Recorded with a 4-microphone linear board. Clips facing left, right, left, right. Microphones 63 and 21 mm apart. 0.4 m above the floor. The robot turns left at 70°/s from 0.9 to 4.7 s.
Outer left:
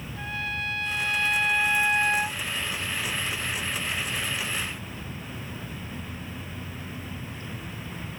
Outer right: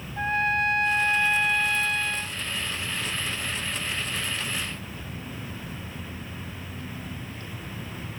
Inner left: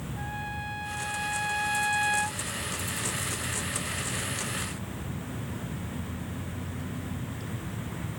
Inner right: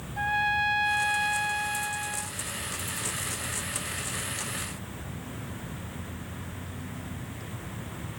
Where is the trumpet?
135° right; by 2.4 s 120° left.